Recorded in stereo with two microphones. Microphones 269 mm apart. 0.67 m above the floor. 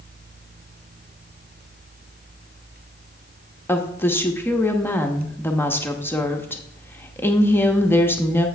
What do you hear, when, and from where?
3.7 s a woman speaking: 10° left (ahead or behind), 0.8 m